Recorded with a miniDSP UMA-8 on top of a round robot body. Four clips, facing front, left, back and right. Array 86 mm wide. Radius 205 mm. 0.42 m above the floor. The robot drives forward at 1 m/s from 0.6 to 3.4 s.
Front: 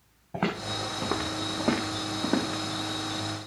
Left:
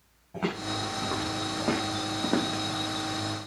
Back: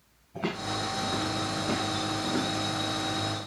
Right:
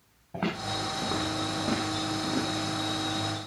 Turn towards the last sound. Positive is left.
turn(degrees=80)